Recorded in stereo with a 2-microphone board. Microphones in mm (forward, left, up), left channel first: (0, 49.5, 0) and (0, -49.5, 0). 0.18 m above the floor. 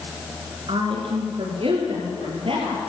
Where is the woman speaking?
60° right (ahead or behind), 2.5 m; by 2.9 s 70° right (ahead or behind), 4 m.